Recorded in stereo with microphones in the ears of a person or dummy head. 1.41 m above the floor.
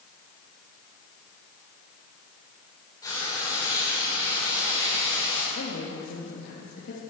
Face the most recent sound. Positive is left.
turn(degrees=70)  # may be behind; listen again after turning